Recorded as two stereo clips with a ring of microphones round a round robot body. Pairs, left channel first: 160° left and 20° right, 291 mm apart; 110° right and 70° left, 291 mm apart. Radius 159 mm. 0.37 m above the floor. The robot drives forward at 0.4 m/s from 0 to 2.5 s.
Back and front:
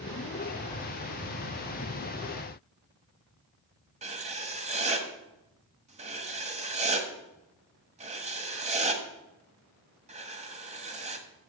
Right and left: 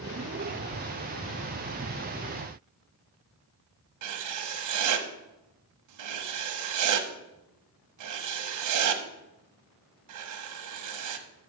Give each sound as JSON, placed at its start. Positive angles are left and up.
{"t": 4.0, "sound": "writing", "azimuth_deg": 45, "distance_m": 1.3}